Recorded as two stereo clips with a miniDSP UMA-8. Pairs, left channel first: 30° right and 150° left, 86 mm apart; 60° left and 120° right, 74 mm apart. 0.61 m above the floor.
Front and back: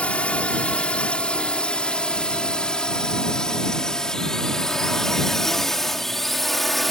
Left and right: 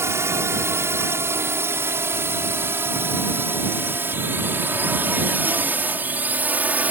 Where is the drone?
100° right; by 6.9 s 115° right.